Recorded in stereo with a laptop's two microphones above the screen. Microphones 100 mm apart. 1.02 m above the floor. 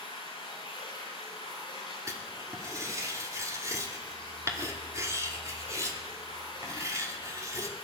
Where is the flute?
I don't hear a flute.